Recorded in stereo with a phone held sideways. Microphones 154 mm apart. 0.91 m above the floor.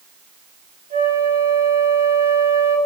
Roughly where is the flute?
Right.